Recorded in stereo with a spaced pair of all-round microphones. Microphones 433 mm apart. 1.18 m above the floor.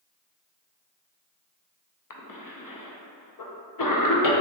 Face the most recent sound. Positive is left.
turn(degrees=45)  # may be behind; listen again after turning